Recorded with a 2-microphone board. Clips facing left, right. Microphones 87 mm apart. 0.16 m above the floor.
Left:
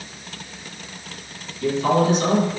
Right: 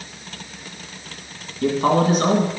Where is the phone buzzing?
I don't hear a phone buzzing.